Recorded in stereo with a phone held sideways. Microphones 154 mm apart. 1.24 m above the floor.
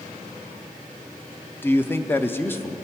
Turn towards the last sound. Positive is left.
turn(degrees=15)  # may be behind; listen again after turning